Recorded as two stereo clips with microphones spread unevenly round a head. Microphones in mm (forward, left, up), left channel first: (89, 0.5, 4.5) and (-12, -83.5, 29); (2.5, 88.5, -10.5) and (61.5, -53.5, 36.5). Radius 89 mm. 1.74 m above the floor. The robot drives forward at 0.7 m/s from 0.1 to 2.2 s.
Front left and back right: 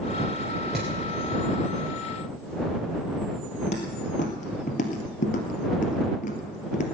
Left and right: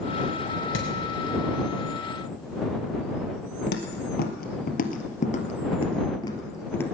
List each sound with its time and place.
0.7 s hammering: 135° left, 4.5 m
3.7 s footsteps: 95° left, 2.5 m; by 6.8 s 25° left, 2.5 m